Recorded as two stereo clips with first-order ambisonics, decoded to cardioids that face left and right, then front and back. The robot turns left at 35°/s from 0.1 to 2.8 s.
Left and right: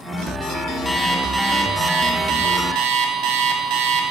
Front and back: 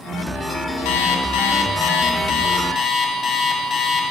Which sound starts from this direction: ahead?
An alarm clock, at 0.8 s.